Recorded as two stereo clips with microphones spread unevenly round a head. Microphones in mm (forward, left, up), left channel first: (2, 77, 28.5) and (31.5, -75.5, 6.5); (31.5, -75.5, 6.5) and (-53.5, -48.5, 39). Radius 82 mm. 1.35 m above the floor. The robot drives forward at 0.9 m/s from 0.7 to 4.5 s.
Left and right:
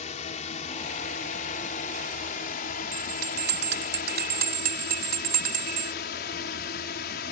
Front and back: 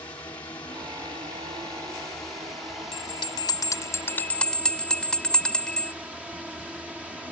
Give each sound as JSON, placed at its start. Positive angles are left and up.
{"t": 0.0, "sound": "a drone", "azimuth_deg": 55}
{"t": 2.9, "sound": "a bell", "azimuth_deg": -50}